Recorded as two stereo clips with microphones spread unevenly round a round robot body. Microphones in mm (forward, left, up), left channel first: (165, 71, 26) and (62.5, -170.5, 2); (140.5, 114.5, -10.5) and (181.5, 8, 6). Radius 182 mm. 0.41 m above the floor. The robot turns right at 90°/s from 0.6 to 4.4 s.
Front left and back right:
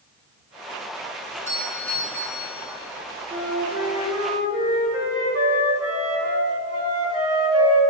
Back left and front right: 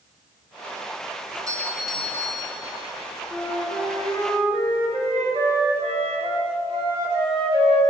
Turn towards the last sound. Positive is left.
turn(degrees=-95)